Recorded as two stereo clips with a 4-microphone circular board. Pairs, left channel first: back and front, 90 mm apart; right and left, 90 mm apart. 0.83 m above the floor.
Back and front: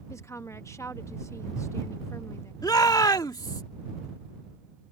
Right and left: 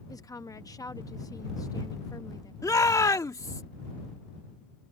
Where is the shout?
140° right.